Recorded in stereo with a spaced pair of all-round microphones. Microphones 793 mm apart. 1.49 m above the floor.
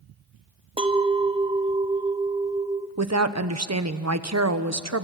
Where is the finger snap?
I don't hear a finger snap.